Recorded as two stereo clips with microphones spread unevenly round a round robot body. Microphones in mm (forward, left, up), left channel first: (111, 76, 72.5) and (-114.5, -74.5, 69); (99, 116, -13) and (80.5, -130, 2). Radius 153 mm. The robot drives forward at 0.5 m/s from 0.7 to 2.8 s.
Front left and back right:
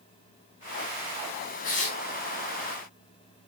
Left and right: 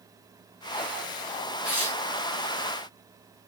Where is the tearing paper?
80° left, 4.5 m; by 2.0 s 85° left, 4.5 m.